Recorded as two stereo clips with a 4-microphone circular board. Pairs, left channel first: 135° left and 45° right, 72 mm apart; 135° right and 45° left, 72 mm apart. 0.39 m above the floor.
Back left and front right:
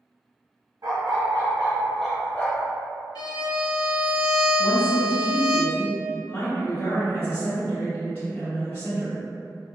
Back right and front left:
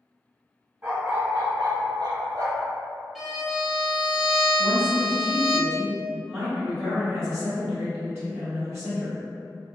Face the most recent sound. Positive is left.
turn(degrees=85)